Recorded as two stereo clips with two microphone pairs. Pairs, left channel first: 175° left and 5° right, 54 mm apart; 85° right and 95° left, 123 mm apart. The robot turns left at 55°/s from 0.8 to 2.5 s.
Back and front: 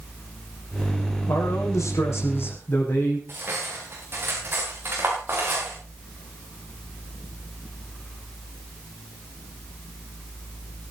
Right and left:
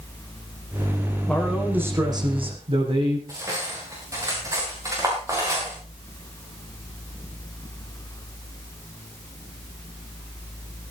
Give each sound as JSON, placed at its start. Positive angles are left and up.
{"t": 1.3, "sound": "a man speaking", "azimuth_deg": -165, "distance_m": 7.0}
{"t": 3.3, "sound": "cutlery clinking", "azimuth_deg": 35, "distance_m": 9.0}